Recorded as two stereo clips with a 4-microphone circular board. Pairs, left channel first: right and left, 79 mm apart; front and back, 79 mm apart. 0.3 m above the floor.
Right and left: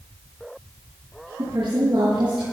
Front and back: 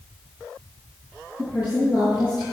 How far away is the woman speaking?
About 6.5 m.